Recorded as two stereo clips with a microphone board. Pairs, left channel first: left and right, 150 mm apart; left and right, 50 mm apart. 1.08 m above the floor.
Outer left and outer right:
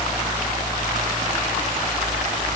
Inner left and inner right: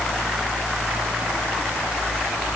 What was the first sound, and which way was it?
Only background noise.